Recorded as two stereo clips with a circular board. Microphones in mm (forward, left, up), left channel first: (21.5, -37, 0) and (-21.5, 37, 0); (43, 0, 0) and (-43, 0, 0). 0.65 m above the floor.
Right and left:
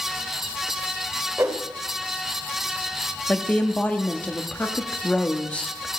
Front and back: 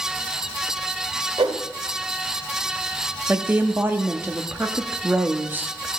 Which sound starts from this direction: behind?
A whoosh, at 1.4 s.